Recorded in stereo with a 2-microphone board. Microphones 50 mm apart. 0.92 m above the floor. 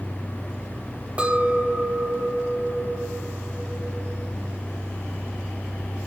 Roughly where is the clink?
Right.